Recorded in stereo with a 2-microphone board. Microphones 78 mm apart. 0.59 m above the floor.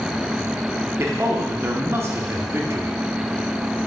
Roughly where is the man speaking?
Right.